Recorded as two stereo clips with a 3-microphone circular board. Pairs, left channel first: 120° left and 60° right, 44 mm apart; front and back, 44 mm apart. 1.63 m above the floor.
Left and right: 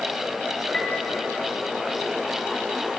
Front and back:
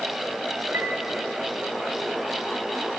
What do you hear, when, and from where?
0.7 s a piano: 165° right, 3 m